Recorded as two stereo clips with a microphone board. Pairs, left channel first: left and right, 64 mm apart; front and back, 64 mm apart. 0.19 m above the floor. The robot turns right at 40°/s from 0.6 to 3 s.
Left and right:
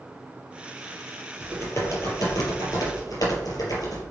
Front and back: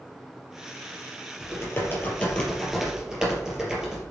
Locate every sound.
1.4 s typing on a keyboard: 35° left, 4 m; by 4.0 s 100° left, 4 m